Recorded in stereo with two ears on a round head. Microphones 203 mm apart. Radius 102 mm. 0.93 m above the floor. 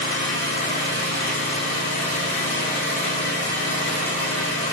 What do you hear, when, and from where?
0.0 s an engine running: 50° left (ahead or behind), 1.5 m